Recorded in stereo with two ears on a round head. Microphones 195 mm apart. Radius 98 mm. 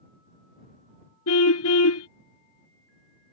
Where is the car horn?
75° left (ahead or behind).